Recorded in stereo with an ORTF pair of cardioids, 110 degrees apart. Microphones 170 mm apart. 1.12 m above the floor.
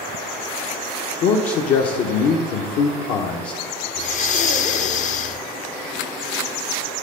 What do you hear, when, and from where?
1.2 s a man speaking: 70° left, 0.7 m
4.0 s breathing: 50° left, 0.5 m